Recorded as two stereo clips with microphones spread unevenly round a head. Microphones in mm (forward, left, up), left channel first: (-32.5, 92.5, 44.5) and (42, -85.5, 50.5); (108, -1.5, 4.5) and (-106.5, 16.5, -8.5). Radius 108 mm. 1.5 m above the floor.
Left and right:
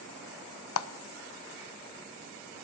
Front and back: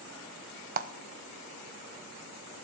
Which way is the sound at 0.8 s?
125° left.